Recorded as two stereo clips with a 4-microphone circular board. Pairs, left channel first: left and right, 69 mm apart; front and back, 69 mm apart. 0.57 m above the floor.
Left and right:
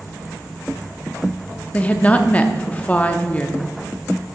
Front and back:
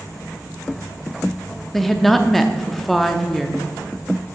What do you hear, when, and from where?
1.7 s a woman speaking: 80° left, 0.6 m